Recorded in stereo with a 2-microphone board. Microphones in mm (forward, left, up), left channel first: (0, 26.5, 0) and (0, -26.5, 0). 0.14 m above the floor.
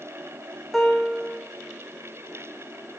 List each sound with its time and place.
0.7 s a piano: centre (ahead or behind), 1.2 m